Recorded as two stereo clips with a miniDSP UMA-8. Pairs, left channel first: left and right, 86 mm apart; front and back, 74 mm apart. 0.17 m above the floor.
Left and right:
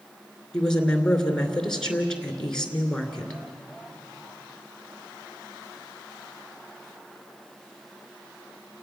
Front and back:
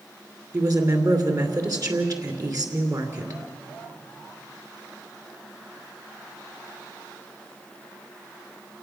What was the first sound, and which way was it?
A woman speaking, 170° left.